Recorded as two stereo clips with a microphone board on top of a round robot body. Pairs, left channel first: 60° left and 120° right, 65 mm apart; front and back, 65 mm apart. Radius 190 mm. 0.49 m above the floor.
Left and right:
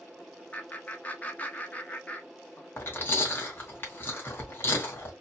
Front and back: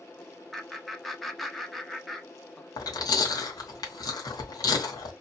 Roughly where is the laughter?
Left.